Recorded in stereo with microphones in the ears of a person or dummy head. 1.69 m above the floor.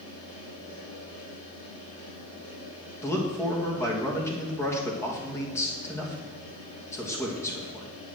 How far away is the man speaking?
About 2.5 m.